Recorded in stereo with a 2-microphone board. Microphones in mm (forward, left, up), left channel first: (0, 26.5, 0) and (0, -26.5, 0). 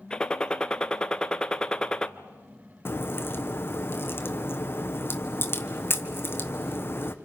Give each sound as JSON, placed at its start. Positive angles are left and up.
{"t": 0.1, "sound": "a gunshot", "side_deg": 20, "distance_m": 0.7}
{"t": 2.9, "sound": "a crack", "side_deg": 45, "distance_m": 1.3}